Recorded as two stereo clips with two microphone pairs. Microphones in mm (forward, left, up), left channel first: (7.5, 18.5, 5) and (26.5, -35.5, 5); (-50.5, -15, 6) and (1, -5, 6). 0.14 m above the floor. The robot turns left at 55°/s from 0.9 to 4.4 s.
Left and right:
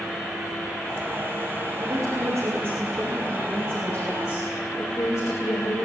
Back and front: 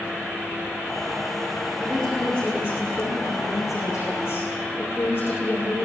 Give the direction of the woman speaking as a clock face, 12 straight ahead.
3 o'clock.